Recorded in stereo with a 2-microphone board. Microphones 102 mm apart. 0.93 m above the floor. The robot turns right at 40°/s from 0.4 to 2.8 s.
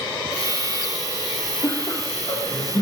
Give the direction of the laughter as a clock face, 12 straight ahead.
10 o'clock.